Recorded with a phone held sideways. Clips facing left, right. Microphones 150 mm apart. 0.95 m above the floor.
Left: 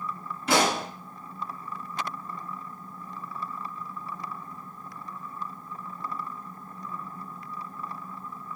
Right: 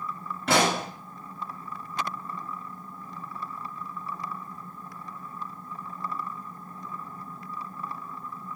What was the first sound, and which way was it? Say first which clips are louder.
A pop: even; 70° right (ahead or behind).